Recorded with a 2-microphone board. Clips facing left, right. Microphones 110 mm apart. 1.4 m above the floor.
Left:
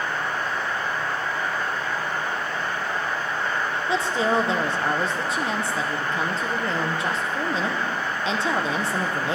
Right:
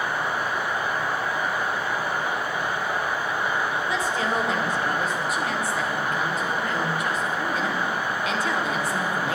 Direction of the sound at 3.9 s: 25° left (ahead or behind).